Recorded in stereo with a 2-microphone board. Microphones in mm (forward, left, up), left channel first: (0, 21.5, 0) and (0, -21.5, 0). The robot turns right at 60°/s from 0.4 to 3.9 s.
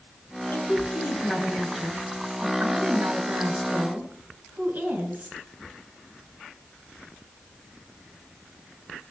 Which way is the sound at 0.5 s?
105° left.